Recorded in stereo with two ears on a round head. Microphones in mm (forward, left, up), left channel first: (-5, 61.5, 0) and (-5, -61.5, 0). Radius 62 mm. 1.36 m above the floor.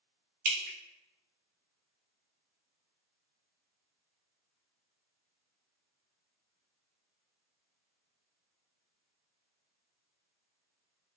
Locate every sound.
0.5 s dripping: 60° right (ahead or behind), 0.5 m